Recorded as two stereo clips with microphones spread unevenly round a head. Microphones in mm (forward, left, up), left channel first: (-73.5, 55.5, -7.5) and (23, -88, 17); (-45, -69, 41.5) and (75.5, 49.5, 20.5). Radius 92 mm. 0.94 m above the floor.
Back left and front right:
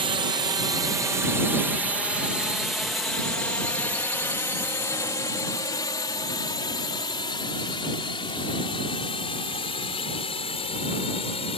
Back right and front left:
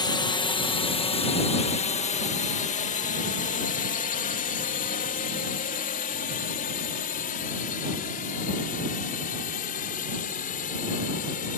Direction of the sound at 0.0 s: 90° right.